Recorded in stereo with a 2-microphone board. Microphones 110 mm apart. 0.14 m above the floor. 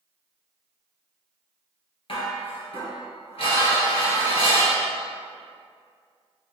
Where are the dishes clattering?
60° left (ahead or behind), 1.8 m.